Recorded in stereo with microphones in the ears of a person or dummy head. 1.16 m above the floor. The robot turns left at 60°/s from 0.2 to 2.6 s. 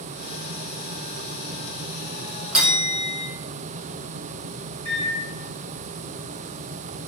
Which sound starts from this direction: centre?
A bell, at 2.5 s.